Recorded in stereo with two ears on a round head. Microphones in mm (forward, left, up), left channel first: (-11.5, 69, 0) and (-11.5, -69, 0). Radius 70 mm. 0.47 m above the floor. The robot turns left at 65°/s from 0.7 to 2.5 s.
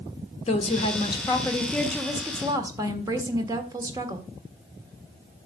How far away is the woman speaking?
About 1.5 m.